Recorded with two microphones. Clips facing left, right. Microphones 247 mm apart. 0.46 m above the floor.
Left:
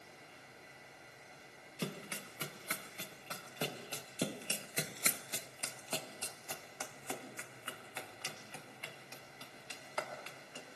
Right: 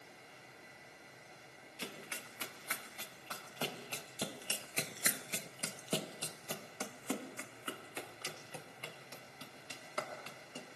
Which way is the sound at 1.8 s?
45° left (ahead or behind).